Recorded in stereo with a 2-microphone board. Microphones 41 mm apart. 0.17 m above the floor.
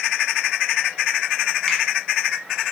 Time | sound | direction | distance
1.7 | a finger snap | 20° left (ahead or behind) | 1.0 m